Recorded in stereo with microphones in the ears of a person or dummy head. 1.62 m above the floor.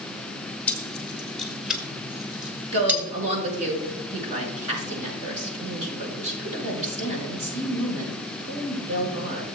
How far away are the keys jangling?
About 1.2 m.